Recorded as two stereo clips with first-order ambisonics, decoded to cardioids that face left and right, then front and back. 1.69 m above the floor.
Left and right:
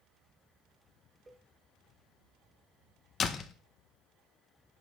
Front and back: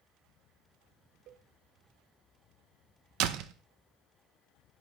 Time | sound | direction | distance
1.3 | a cowbell | 160° right | 1.2 m
3.2 | a door slam | 155° left | 1.3 m